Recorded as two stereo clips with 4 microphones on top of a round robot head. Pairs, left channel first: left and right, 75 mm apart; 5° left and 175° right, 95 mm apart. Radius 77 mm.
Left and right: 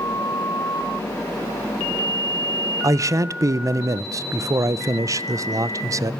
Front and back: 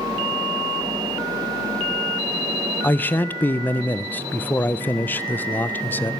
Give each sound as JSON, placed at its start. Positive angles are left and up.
{"t": 2.8, "sound": "a man speaking", "azimuth_deg": -60, "distance_m": 0.5}